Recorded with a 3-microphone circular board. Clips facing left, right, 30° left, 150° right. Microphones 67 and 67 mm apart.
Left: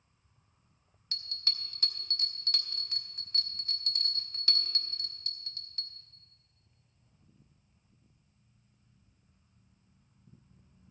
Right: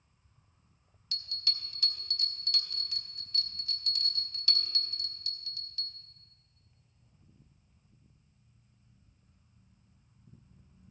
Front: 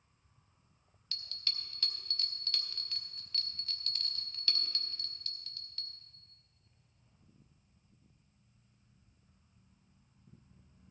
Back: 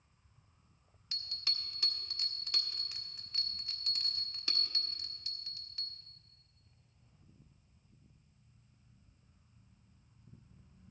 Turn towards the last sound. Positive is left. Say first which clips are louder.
# even, even
turn(degrees=135)